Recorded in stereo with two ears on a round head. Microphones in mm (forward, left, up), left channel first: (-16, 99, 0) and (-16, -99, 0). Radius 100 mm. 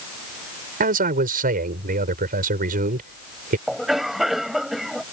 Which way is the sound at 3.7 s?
Centre (ahead or behind).